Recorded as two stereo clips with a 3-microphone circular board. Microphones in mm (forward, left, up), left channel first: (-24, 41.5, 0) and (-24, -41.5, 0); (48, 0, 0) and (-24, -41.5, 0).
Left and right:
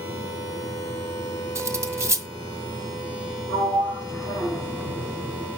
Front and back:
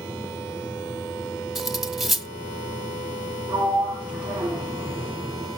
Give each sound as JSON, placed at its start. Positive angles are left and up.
{"t": 1.6, "sound": "cutlery clinking", "azimuth_deg": -65, "distance_m": 0.7}
{"t": 3.5, "sound": "a sliding door", "azimuth_deg": 135, "distance_m": 6.5}